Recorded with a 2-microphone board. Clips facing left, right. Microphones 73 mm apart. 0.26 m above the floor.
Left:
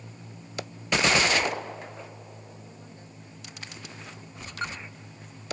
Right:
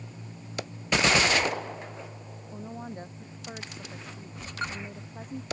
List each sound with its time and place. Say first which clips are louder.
2.5 s a woman speaking: right 8 dB; 50° right (ahead or behind)